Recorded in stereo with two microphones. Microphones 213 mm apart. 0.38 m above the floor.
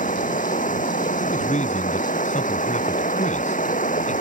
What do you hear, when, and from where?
0.0 s running water: 35° left (ahead or behind)
1.2 s a man speaking: 35° left (ahead or behind)